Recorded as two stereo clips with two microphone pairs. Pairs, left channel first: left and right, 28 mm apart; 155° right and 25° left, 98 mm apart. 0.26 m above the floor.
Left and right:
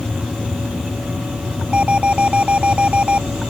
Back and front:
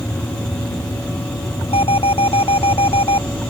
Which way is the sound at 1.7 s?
140° right.